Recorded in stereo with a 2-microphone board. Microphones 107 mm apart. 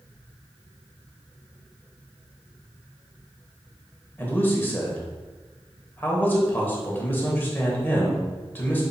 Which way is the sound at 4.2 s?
20° left (ahead or behind).